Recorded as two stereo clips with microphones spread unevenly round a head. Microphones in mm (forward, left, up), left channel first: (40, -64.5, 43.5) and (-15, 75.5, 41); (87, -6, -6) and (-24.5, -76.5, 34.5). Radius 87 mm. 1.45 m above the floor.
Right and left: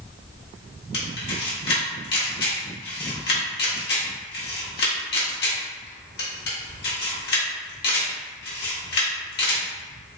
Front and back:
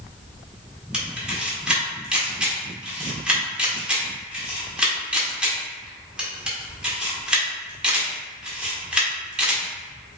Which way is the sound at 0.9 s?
80° right.